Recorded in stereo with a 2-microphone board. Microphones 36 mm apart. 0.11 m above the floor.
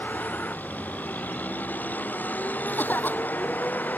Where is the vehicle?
60° left (ahead or behind).